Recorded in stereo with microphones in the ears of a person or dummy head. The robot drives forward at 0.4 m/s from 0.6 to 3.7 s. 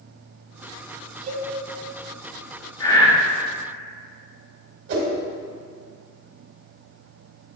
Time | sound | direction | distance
1.3 | a cowbell | 45° right (ahead or behind) | 1.4 m
2.8 | breathing | 20° left (ahead or behind) | 1.2 m
4.9 | a whoosh | 55° right (ahead or behind) | 1.5 m